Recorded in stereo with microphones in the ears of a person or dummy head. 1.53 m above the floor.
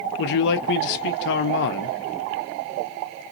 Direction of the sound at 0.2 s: 55° left (ahead or behind).